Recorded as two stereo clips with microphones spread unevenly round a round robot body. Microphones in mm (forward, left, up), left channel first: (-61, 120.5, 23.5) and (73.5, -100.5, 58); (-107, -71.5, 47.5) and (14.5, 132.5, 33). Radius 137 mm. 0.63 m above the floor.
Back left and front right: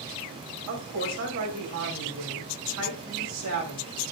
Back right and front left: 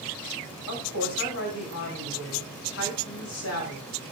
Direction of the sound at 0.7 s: 85° right.